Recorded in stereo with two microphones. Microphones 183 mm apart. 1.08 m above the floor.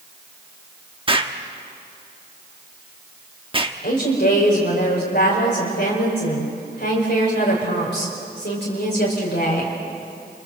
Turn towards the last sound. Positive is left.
turn(degrees=75)  # may be behind; listen again after turning